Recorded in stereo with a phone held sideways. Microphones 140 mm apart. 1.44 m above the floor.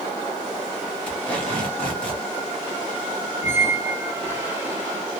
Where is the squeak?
15° right (ahead or behind), 1.6 m.